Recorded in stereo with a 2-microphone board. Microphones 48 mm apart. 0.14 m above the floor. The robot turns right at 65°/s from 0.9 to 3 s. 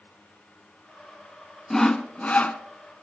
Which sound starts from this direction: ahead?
Sawing, at 1.7 s.